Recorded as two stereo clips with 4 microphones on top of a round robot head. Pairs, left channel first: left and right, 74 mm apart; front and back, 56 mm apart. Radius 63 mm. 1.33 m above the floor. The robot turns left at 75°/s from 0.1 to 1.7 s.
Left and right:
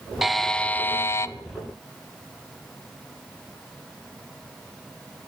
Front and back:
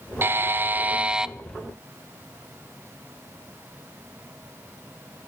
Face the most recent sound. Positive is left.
turn(degrees=75)